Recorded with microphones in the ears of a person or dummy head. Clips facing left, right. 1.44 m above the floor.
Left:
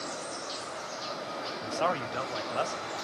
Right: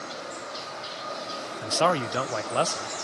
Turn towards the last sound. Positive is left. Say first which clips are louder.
# right 7 dB
turn(degrees=-65)  # may be behind; listen again after turning